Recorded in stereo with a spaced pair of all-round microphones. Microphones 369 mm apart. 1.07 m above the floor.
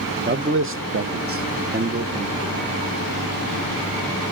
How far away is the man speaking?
About 1.1 m.